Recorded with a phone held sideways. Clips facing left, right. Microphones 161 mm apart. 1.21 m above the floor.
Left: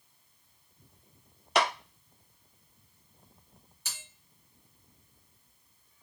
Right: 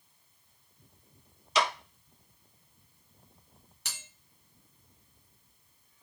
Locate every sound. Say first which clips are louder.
1.6 s a clap: left 2 dB; 60° left (ahead or behind), 0.7 m
3.9 s a bell: right 1 dB; 75° right (ahead or behind), 1.6 m